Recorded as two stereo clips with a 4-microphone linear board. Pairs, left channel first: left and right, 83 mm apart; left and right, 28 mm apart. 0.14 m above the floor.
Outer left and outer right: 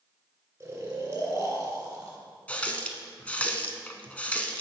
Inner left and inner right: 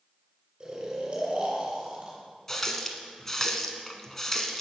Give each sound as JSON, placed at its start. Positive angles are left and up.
{"t": 0.6, "sound": "snoring", "side_deg": -35, "distance_m": 1.9}
{"t": 2.5, "sound": "a running tap", "side_deg": 15, "distance_m": 0.7}